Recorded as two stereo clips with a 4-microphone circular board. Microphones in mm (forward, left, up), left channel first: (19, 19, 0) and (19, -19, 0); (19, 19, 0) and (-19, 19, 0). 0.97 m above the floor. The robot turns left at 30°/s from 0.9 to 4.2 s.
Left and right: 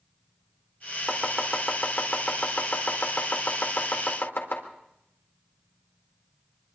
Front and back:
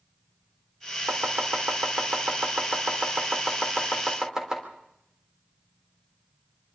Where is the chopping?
160° right, 3.5 m; by 4.6 s 105° left, 3.5 m.